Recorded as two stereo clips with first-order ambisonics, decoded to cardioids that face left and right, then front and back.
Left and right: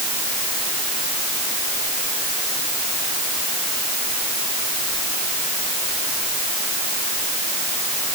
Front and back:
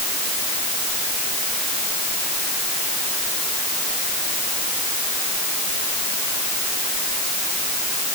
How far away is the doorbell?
I don't hear a doorbell.